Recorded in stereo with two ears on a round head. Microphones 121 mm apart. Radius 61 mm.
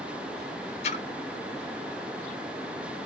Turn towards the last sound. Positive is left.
turn(degrees=45)  # may be behind; listen again after turning